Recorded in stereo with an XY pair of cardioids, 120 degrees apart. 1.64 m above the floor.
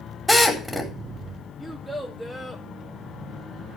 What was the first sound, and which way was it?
A drill, straight ahead.